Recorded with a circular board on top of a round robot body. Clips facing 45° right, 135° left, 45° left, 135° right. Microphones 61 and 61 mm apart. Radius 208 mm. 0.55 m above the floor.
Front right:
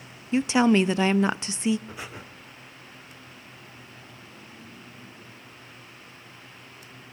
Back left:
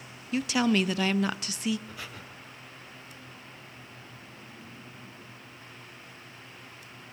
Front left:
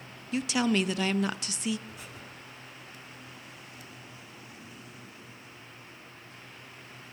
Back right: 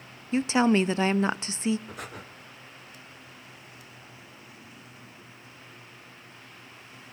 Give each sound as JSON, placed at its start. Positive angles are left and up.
{"t": 0.3, "sound": "a woman speaking", "azimuth_deg": -95, "distance_m": 0.8}
{"t": 1.9, "sound": "breathing", "azimuth_deg": -110, "distance_m": 2.0}